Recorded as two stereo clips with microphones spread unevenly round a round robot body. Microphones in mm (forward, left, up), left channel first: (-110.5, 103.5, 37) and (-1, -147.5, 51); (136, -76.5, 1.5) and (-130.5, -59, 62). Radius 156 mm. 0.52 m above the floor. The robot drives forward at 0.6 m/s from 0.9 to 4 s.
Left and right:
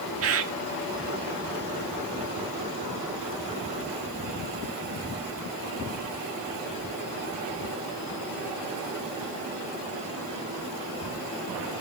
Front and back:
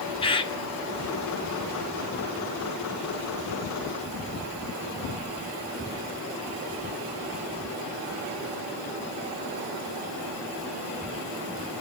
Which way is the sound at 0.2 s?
55° right.